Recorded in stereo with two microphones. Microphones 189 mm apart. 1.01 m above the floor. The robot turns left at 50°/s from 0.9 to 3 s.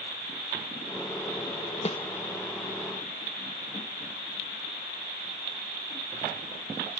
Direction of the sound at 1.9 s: 35° left (ahead or behind).